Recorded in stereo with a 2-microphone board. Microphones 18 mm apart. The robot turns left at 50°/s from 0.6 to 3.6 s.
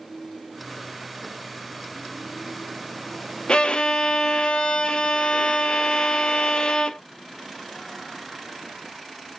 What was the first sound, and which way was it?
A violin, 60° left (ahead or behind).